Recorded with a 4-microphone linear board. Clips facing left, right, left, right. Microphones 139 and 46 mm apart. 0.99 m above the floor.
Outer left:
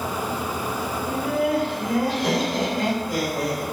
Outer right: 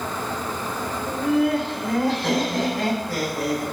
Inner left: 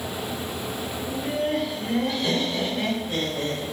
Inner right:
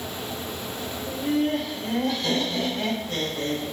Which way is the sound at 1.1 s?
5° left (ahead or behind).